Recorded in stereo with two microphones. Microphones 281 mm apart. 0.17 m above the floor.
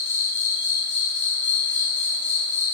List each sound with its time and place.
0.0 s an insect: 45° left (ahead or behind), 1.4 m